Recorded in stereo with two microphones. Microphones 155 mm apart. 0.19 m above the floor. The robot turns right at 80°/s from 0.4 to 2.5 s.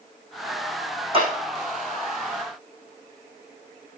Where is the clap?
35° right (ahead or behind), 7.5 m; by 1.3 s 45° right (ahead or behind), 7.5 m.